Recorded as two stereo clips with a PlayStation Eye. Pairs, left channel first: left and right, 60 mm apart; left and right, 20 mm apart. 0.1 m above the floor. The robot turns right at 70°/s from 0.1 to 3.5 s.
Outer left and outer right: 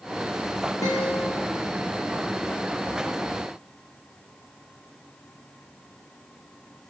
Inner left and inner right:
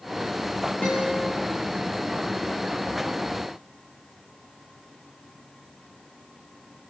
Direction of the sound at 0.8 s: 95° left.